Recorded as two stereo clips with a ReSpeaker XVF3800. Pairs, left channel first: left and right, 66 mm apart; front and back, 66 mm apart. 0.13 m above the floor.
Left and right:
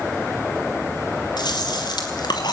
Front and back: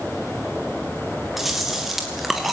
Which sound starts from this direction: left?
Chewing, at 1.4 s.